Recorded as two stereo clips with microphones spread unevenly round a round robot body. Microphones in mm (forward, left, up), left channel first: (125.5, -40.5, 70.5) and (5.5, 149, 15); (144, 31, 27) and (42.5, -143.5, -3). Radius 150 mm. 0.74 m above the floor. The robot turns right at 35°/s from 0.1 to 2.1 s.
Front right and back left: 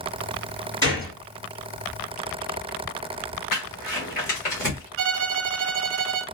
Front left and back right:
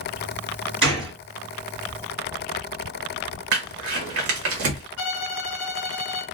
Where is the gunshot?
145° right, 2 m; by 1.1 s 130° right, 2 m.